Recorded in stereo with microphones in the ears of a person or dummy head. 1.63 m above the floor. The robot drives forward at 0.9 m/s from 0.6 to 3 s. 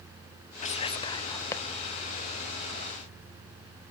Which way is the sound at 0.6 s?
35° left (ahead or behind).